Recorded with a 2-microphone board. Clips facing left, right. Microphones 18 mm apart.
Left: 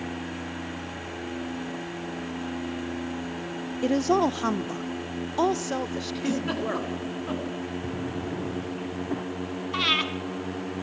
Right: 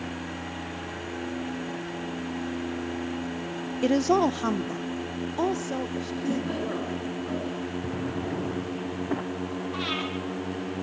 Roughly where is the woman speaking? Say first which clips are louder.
Right 1 dB; centre.